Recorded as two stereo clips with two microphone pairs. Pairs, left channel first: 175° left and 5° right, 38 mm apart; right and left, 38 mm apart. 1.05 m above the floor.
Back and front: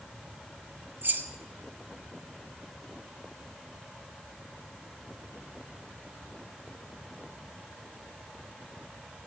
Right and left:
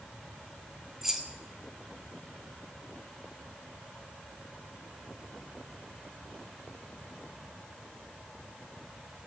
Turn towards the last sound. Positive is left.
turn(degrees=10)